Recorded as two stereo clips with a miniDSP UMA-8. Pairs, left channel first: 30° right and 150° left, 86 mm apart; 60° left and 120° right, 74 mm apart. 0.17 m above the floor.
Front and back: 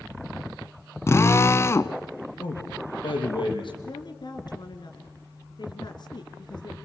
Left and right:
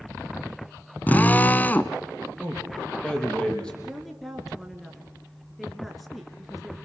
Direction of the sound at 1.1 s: 5° left.